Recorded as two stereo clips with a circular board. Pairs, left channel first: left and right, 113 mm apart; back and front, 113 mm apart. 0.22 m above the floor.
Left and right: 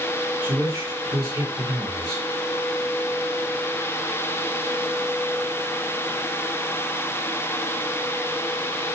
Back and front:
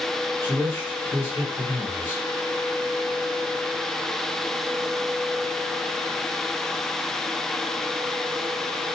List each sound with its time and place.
0.4 s a man speaking: 120° right, 2 m